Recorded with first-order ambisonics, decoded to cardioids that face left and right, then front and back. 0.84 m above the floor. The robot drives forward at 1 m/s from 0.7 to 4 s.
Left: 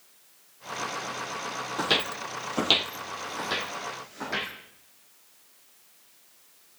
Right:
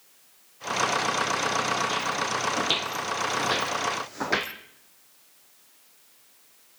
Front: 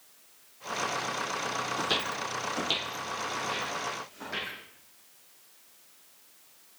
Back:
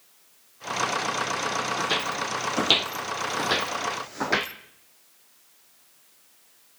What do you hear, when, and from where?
1.8 s footsteps: 85° left, 1.2 m; by 4.5 s 145° right, 1.7 m